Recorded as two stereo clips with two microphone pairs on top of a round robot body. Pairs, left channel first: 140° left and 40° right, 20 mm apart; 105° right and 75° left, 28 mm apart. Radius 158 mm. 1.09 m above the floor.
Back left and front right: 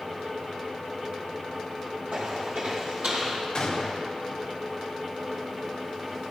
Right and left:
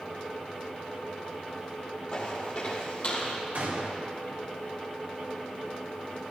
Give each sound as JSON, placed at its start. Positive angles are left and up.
{"t": 2.1, "sound": "footsteps", "azimuth_deg": -40, "distance_m": 2.5}
{"t": 3.5, "sound": "a gunshot", "azimuth_deg": 90, "distance_m": 2.0}